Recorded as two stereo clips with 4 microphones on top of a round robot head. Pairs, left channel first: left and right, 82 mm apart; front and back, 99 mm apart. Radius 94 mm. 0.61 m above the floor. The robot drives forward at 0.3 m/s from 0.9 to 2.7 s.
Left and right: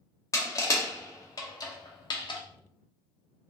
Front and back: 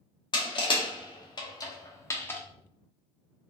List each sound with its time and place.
0.3 s crushing: 40° left, 0.8 m; by 2.4 s 75° left, 0.6 m